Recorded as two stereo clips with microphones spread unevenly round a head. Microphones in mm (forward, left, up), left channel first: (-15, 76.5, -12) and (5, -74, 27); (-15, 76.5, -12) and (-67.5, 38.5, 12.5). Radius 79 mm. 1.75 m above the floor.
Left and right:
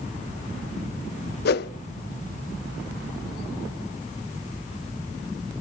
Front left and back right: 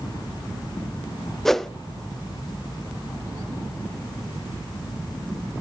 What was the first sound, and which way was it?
A whoosh, 125° left.